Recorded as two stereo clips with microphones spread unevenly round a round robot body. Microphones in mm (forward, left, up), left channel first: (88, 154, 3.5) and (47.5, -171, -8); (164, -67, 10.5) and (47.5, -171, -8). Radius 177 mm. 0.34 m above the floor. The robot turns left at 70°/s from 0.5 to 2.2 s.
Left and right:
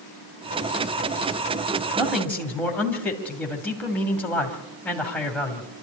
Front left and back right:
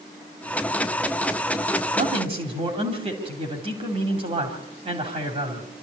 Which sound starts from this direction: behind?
A man speaking, at 1.9 s.